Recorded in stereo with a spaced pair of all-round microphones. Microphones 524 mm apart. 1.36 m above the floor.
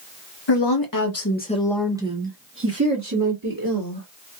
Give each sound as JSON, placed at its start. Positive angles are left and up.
{"t": 0.5, "sound": "a woman speaking", "side_deg": 55, "distance_m": 0.9}